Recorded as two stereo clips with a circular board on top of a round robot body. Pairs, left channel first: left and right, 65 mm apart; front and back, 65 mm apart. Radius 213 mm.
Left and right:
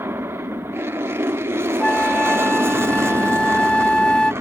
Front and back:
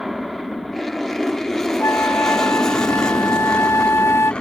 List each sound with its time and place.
0.0 s an aircraft: 95° right; by 4.4 s 70° right
1.8 s a flute: 20° left